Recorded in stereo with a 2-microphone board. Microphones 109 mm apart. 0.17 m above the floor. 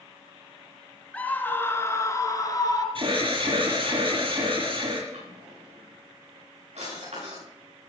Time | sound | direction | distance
1.1 | a scream | 15° left (ahead or behind) | 2 m
3.0 | an alarm | 55° right (ahead or behind) | 7 m
5.1 | a drawer | 85° right | 9 m